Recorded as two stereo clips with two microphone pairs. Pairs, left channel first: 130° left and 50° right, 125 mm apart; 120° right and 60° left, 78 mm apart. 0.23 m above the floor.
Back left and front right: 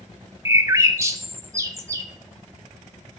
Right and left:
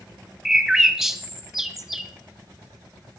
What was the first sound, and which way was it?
A bird, 20° right.